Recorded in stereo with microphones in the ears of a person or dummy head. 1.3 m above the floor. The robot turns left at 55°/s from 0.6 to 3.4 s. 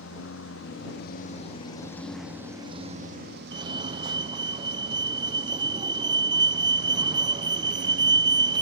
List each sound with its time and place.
0.0 s a lawn mower: 85° left; by 8.6 s 50° right (ahead or behind)
3.5 s a fire alarm: 20° right (ahead or behind)